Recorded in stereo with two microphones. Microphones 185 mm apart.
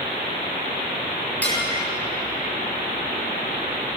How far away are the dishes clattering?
About 7.5 m.